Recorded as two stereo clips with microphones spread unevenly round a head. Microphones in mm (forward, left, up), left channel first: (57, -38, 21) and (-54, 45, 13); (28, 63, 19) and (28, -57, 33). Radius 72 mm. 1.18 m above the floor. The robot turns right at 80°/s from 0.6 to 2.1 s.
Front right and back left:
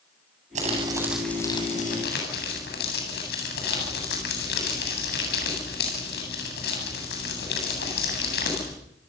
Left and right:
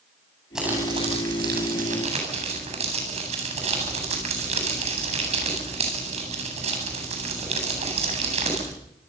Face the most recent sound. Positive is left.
turn(degrees=-55)